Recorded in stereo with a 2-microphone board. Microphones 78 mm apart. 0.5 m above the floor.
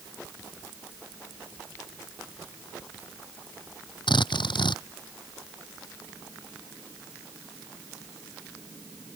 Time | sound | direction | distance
4.1 | a drill | 85° left | ?